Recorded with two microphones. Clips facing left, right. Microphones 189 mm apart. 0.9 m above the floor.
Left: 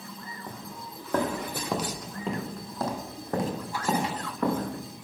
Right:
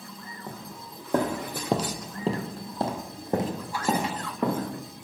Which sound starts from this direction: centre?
Footsteps, at 0.5 s.